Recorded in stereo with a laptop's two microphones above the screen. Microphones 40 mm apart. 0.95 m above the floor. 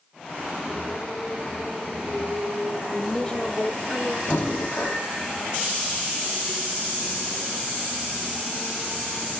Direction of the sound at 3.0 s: 5° left (ahead or behind).